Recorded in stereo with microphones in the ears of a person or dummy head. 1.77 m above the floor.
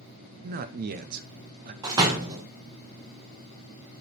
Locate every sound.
0.4 s a man speaking: 55° right (ahead or behind), 0.9 m
1.8 s a door slam: 20° right (ahead or behind), 1.5 m